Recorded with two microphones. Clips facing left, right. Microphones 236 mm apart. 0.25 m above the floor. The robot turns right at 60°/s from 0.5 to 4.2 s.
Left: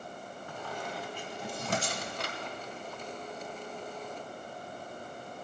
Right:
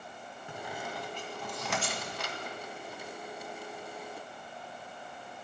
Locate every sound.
0.5 s a squeak: 20° right (ahead or behind), 0.9 m; by 2.4 s 55° left (ahead or behind), 0.9 m